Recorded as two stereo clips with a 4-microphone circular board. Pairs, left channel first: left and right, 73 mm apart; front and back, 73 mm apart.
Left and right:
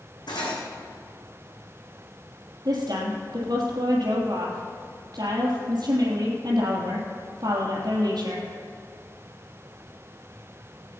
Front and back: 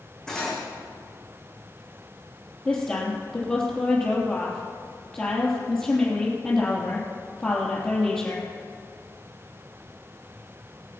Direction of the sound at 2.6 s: 70° right.